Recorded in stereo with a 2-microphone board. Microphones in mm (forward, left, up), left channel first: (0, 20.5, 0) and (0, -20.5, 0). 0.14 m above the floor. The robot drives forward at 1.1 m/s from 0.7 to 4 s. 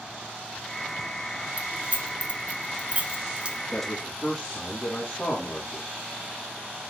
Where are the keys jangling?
30° right (ahead or behind), 1.4 m; by 3.6 s 25° right (ahead or behind), 1.8 m.